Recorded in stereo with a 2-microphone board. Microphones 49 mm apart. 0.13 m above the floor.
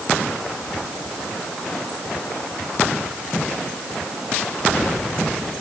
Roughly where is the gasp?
I don't hear a gasp.